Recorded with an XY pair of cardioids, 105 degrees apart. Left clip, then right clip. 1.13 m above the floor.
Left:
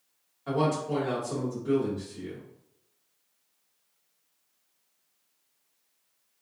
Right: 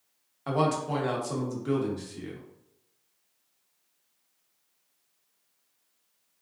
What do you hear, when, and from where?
0.5 s a man speaking: 65° right, 1.2 m